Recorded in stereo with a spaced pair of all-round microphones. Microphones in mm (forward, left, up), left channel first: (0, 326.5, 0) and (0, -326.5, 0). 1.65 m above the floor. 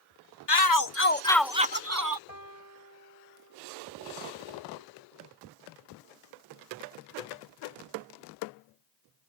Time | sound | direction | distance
0.5 | a shout | 40° left (ahead or behind) | ?
2.3 | a piano | 75° right (ahead or behind) | ?